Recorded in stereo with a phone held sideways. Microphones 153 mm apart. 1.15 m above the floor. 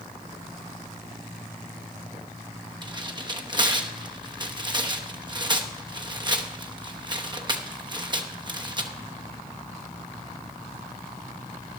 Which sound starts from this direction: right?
Tearing paper, at 2.8 s.